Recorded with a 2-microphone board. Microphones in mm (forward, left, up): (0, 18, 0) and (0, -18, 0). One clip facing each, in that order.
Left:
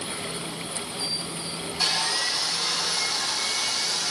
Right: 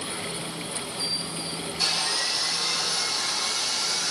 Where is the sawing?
15° left (ahead or behind), 7.5 m.